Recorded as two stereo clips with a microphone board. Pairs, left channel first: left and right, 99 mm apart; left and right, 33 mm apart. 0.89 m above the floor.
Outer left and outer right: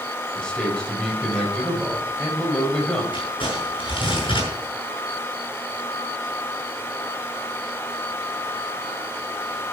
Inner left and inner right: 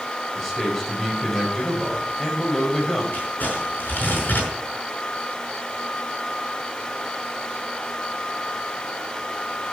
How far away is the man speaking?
About 4.5 m.